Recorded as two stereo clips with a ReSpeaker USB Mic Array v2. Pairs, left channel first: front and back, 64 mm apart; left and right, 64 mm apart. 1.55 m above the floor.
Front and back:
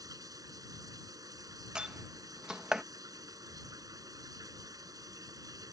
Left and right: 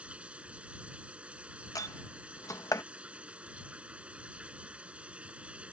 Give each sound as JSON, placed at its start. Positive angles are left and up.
{"t": 0.0, "sound": "running water", "azimuth_deg": -165}
{"t": 1.8, "sound": "a door slam", "azimuth_deg": 105}